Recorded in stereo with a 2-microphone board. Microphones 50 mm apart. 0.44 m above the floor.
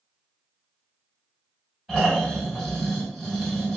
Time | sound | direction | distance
1.9 | snoring | 5° right (ahead or behind) | 1.5 m